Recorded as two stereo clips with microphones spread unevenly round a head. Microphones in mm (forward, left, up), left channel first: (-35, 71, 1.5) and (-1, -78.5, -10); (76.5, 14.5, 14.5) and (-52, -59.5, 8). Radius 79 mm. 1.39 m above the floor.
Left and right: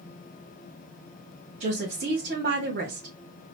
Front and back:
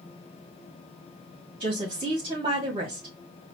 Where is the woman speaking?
95° right, 2 m.